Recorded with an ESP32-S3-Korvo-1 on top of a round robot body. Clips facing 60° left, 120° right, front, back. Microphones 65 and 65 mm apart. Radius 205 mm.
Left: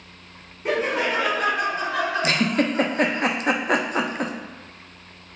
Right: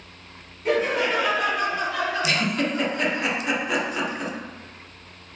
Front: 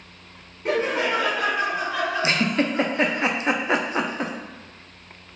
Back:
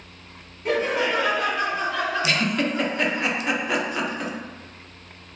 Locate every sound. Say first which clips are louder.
0.7 s laughter: right 1 dB, even; 30° left, 1.6 m; by 3.2 s 120° left, 1.6 m
2.2 s a giggle: left 3 dB, front 1 dB; 45° left, 0.5 m